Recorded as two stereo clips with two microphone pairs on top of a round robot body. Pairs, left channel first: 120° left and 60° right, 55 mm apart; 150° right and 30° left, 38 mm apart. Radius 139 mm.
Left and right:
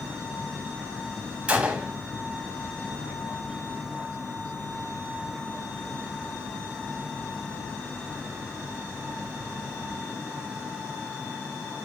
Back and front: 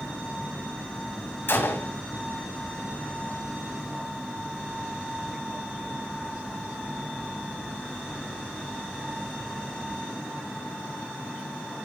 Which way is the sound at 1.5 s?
130° right.